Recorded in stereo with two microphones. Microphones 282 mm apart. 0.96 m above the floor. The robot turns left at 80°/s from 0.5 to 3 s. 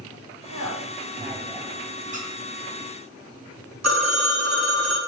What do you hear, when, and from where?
0.5 s a woman speaking: 75° right (ahead or behind), 1.6 m; by 1.8 s 30° left (ahead or behind), 1.6 m
2.1 s a squeak: 25° right (ahead or behind), 1.3 m; by 2.3 s 35° right (ahead or behind), 1.3 m
3.8 s a phone ringing: 65° right (ahead or behind), 1.1 m